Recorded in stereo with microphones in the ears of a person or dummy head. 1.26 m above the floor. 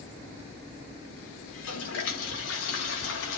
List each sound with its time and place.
1.5 s a toilet flushing: 75° left (ahead or behind), 3 m